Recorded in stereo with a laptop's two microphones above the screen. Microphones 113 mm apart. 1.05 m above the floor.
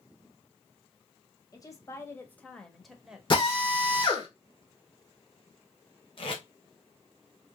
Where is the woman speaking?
35° left (ahead or behind), 1.3 m; by 3.2 s 10° right (ahead or behind), 1.1 m.